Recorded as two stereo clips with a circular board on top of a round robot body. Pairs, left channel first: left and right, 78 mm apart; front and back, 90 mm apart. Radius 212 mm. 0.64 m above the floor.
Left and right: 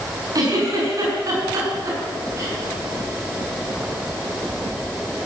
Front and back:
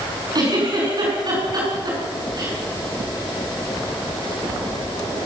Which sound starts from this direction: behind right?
A giggle, at 0.3 s.